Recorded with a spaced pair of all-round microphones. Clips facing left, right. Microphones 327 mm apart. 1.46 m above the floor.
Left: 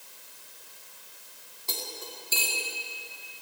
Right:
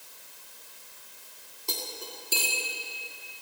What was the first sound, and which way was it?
Cutlery clinking, 40° right (ahead or behind).